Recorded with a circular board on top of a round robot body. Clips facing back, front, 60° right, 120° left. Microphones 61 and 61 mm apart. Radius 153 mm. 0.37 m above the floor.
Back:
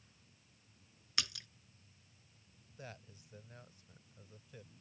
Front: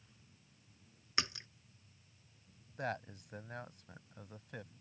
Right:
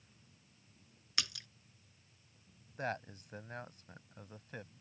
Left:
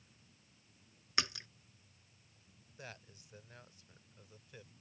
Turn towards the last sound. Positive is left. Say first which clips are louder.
# front 12 dB, right 13 dB
turn(degrees=-25)